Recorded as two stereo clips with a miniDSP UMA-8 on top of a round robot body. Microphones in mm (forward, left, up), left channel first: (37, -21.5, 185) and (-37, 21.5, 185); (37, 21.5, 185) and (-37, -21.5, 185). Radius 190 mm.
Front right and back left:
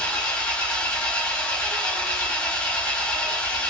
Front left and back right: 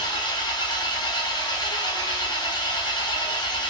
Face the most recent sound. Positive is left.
turn(degrees=45)